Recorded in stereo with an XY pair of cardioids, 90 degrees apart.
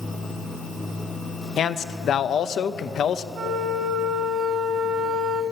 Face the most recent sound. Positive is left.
turn(degrees=-60)